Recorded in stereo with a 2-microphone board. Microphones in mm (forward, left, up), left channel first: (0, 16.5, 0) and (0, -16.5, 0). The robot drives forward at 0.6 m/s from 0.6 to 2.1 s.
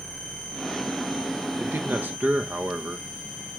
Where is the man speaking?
75° right (ahead or behind), 1.2 m; by 3.6 s 65° right (ahead or behind), 1.3 m.